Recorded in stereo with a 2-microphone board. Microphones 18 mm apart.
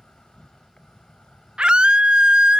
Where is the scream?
60° right (ahead or behind).